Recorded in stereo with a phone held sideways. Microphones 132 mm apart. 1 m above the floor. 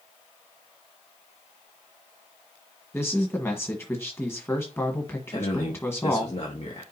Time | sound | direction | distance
2.9 | a man speaking | 20° left (ahead or behind) | 1.1 m
5.3 | a man speaking | 50° left (ahead or behind) | 1.5 m